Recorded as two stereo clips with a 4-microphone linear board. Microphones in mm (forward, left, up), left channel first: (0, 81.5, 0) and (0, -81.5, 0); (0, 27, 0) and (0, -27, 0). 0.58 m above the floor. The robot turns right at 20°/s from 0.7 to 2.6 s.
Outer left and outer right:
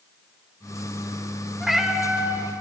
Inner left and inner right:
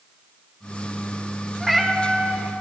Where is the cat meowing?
Centre (ahead or behind), 0.9 m; by 2.5 s 15° right (ahead or behind), 0.9 m.